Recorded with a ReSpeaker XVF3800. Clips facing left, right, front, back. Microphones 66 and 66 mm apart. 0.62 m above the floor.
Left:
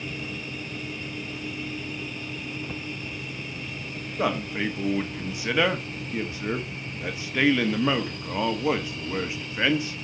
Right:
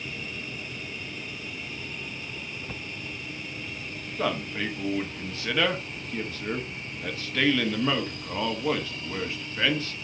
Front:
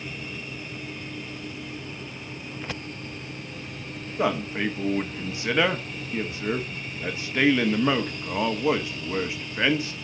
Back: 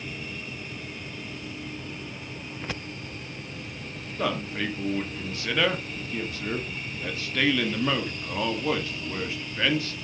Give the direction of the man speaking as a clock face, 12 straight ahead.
11 o'clock.